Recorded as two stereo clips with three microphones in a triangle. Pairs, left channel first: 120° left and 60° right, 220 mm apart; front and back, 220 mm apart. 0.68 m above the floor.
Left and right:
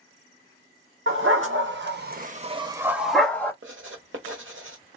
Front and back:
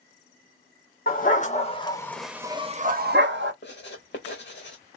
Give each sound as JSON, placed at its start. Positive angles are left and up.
{"t": 1.1, "sound": "a dog barking", "azimuth_deg": -45, "distance_m": 0.9}
{"t": 3.6, "sound": "writing", "azimuth_deg": -35, "distance_m": 0.9}